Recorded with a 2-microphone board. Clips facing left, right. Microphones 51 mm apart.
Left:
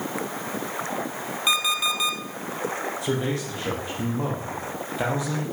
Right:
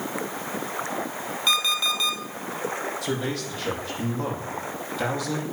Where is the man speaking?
25° left (ahead or behind), 6.5 m.